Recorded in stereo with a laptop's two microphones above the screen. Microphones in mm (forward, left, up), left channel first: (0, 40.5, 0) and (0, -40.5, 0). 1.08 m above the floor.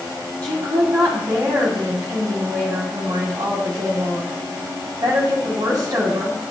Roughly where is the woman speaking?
Right.